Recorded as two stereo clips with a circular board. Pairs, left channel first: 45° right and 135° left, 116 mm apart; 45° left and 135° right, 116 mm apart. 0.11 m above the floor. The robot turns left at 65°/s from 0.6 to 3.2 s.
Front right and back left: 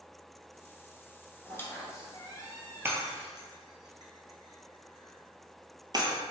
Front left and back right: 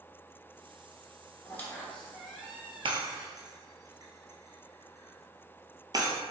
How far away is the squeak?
About 0.9 m.